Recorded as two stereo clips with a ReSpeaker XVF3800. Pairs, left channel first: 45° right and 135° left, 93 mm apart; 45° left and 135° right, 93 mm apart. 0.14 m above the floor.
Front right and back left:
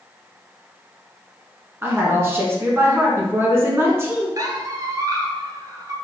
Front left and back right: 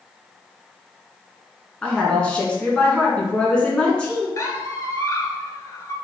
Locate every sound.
1.8 s a woman speaking: 110° left, 1.1 m
4.4 s a squeak: 95° left, 0.7 m